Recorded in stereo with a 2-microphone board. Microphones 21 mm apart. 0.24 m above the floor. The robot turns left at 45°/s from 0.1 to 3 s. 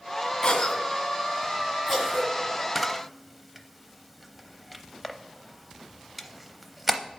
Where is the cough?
30° left (ahead or behind), 1.7 m; by 2.3 s 35° right (ahead or behind), 1.7 m.